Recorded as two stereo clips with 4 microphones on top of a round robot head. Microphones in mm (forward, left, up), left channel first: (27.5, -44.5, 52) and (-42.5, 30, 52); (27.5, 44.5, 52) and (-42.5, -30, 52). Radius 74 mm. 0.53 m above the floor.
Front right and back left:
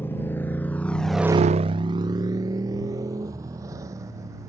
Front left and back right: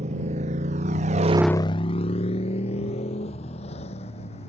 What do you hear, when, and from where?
0.0 s a motorcycle: 115° right; by 4.5 s 70° left